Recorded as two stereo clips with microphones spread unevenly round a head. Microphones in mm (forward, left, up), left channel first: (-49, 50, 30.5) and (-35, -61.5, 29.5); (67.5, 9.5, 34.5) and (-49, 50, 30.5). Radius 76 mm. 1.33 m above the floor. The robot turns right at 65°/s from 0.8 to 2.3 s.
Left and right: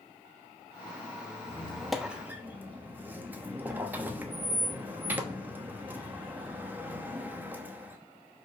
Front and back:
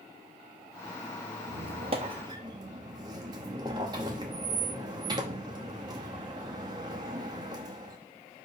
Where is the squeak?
160° left, 0.8 m; by 8.0 s 145° right, 0.8 m.